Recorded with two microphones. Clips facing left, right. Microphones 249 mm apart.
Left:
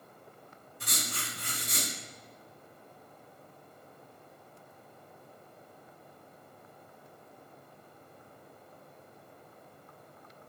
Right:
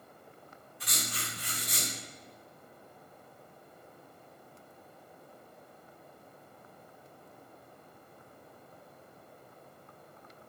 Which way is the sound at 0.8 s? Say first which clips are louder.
Left 1 dB; 55° left (ahead or behind).